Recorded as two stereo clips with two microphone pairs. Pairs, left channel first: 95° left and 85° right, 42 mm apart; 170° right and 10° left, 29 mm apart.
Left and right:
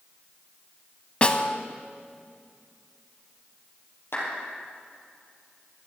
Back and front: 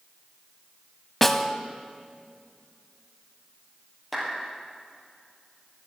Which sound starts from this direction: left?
A clap, at 4.1 s.